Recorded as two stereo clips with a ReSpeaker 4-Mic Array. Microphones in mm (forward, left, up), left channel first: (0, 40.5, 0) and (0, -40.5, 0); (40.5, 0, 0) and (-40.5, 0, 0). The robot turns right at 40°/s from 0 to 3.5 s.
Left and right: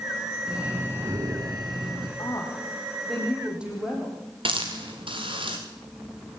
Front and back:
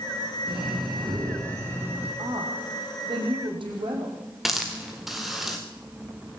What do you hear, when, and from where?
0.5 s breathing: 170° right, 6 m; by 2.1 s 105° right, 6 m
2.2 s a woman speaking: 140° left, 7 m; by 4.2 s 170° right, 7 m
4.5 s a hiss: 90° right, 4 m